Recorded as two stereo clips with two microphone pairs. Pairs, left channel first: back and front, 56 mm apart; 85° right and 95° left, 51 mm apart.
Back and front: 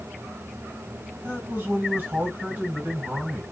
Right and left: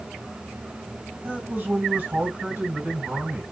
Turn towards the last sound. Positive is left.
turn(degrees=50)